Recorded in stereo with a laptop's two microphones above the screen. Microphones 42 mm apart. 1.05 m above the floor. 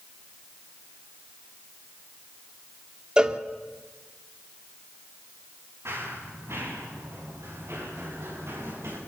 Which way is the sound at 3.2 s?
20° right (ahead or behind).